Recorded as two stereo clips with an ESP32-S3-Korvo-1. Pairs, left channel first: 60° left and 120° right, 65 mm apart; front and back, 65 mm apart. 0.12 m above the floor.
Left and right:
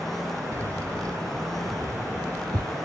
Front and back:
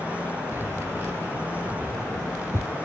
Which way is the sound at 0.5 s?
130° right.